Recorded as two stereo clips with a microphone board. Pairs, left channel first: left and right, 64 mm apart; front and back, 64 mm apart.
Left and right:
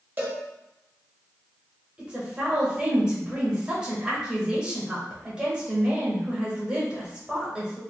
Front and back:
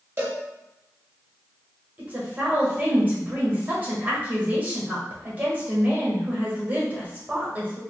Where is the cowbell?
140° right, 0.9 m.